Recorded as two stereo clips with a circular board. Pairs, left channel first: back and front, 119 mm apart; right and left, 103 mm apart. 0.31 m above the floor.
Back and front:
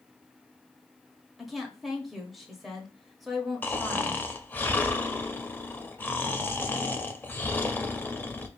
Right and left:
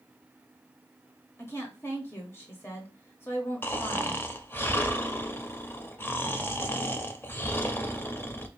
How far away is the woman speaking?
About 0.9 m.